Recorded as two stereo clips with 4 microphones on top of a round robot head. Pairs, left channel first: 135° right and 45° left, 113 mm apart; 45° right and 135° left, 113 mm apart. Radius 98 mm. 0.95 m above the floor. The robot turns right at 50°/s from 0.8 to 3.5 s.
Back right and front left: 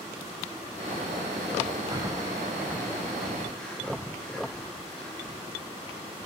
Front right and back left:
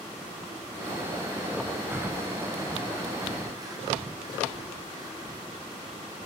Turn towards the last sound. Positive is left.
turn(degrees=150)